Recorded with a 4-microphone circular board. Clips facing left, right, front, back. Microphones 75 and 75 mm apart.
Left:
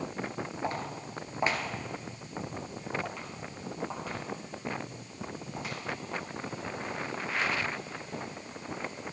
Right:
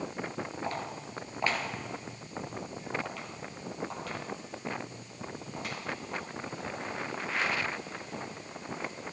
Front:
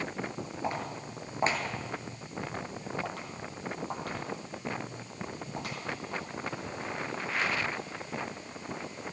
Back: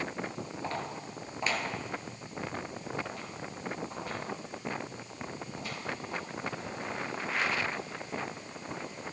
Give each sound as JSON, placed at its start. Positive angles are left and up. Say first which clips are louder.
{"t": 0.6, "sound": "footsteps", "louder": "left 1 dB, front 3 dB", "azimuth_deg": 60, "distance_m": 1.5}